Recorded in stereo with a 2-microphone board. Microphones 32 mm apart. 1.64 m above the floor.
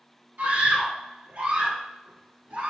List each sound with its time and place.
0.4 s a scream: 75° right (ahead or behind), 1.9 m